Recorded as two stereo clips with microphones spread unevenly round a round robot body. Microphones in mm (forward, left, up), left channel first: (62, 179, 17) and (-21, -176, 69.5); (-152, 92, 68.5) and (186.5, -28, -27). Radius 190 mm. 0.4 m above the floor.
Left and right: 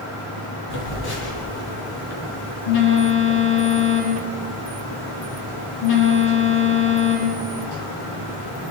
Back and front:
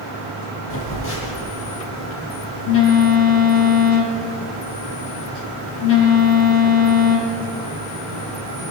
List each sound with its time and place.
0.7 s a phone buzzing: 105° left, 8.5 m